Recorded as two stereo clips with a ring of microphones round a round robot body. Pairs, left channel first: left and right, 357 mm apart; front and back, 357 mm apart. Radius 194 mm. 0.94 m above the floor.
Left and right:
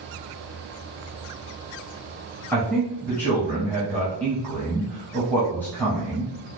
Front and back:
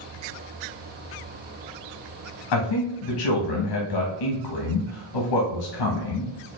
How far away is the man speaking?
About 0.9 m.